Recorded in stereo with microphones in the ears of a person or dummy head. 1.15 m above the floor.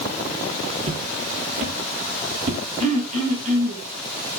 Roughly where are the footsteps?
Right.